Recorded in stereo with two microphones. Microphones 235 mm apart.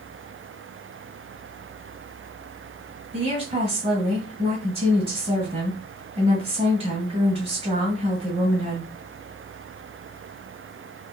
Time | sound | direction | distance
3.1 | a woman speaking | 25° right (ahead or behind) | 1.7 m